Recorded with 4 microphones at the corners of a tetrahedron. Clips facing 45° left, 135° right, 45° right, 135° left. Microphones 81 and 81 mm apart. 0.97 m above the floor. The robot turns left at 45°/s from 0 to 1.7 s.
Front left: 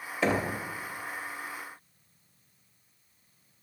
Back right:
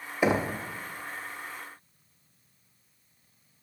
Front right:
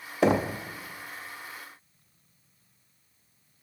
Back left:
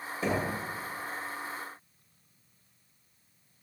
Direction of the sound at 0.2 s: 60° right.